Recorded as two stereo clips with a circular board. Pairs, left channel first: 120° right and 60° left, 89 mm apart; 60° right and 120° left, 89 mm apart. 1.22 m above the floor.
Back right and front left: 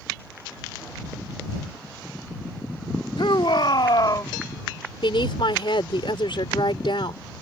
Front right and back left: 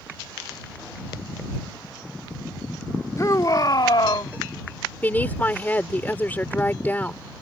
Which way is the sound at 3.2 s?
110° right.